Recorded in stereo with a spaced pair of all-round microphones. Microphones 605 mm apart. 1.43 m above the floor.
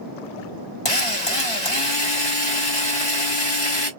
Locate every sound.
0.8 s a drill: 60° left (ahead or behind), 1.7 m